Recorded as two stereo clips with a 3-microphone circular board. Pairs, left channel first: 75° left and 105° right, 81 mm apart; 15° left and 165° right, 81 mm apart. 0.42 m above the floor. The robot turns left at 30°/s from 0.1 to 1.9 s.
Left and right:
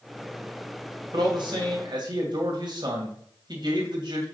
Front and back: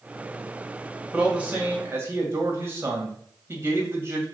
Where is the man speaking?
85° right, 2 m; by 4.2 s 110° right, 2 m.